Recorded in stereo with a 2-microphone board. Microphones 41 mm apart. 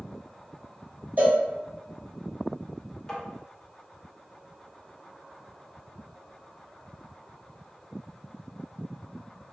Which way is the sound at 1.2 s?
45° right (ahead or behind).